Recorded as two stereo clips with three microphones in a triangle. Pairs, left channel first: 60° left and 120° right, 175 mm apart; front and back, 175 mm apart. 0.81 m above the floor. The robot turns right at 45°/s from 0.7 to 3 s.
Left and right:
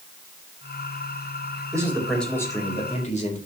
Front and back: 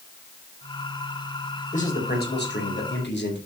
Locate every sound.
1.7 s a man speaking: 45° right, 4.5 m; by 3.4 s 10° left, 4.5 m